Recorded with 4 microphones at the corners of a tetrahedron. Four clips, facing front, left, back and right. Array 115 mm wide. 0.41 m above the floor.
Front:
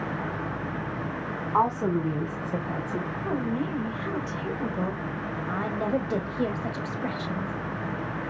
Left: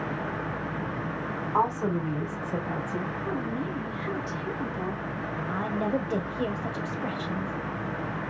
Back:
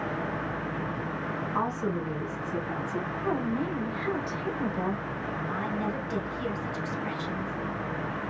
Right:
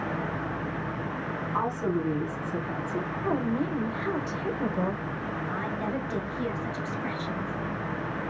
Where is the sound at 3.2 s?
75° right, 1.8 m.